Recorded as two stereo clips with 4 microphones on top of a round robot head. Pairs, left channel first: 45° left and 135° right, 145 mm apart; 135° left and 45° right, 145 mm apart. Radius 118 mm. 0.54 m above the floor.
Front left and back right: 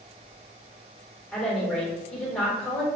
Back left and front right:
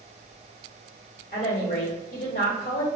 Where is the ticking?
I don't hear ticking.